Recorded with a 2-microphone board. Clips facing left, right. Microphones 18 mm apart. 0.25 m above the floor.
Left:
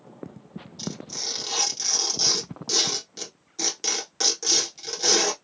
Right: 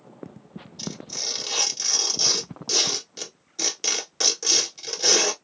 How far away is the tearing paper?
About 1.1 m.